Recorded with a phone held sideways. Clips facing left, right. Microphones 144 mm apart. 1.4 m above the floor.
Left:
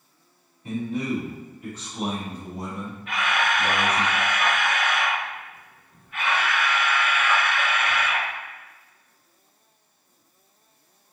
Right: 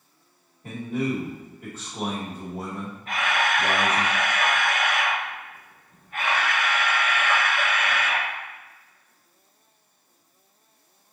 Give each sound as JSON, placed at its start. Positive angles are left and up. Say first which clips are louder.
{"t": 0.6, "sound": "a man speaking", "louder": "even", "side_deg": -55, "distance_m": 1.9}
{"t": 3.1, "sound": "a camera shutter", "louder": "even", "side_deg": -40, "distance_m": 1.0}